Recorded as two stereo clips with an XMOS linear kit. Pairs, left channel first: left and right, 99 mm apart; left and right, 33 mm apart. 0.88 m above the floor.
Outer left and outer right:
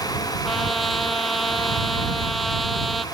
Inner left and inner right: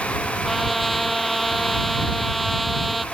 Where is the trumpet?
Centre (ahead or behind).